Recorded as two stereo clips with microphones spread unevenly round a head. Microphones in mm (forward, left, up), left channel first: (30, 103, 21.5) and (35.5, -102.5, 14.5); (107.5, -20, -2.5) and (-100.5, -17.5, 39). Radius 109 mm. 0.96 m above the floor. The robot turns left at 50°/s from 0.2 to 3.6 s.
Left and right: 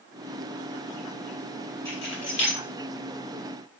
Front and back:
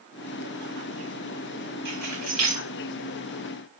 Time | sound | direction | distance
1.9 | keys jangling | 170° left | 2 m